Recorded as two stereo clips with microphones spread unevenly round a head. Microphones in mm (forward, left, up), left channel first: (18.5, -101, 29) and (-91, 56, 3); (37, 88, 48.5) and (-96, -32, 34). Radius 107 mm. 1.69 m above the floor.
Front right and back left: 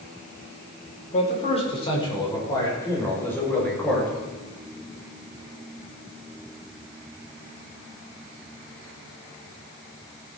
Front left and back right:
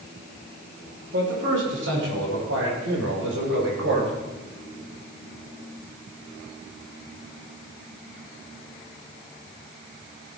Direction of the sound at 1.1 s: 105° right.